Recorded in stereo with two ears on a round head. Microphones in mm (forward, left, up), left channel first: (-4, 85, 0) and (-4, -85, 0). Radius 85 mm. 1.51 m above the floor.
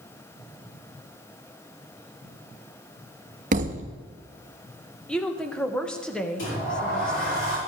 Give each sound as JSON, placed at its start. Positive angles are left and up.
{"t": 3.5, "sound": "a thud", "side_deg": -40, "distance_m": 1.0}
{"t": 5.1, "sound": "a woman speaking", "side_deg": 5, "distance_m": 1.3}
{"t": 6.4, "sound": "a sliding door", "side_deg": 65, "distance_m": 5.0}